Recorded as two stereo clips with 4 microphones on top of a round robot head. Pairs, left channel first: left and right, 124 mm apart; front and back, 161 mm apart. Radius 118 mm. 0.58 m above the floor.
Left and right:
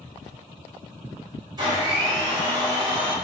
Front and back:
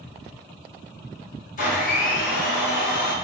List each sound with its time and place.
1.6 s a blender: 35° right, 1.7 m